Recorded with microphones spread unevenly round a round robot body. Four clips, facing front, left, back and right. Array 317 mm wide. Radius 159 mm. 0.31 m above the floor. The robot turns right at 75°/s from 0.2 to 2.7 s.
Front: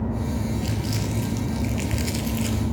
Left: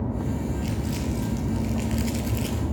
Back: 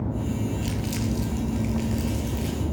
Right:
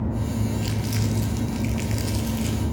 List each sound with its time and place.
0.6 s crumpling: 115° right, 2.5 m; by 2.6 s 35° left, 2.5 m